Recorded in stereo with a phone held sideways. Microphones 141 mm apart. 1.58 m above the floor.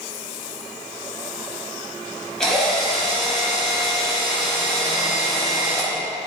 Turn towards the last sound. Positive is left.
turn(degrees=5)  # may be behind; listen again after turning